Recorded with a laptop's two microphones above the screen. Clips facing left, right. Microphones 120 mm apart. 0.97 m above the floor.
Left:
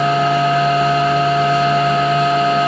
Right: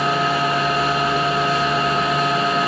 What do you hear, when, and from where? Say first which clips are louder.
0.0 s a machine running: left 5 dB; 5° right (ahead or behind), 1.0 m